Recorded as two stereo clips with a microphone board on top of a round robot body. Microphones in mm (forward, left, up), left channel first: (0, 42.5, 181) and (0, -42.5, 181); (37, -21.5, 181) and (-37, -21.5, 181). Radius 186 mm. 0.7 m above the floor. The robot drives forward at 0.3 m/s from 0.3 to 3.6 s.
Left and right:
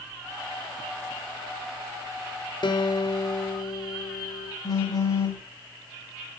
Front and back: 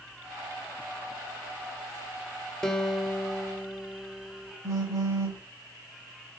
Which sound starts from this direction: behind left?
A phone buzzing, at 4.6 s.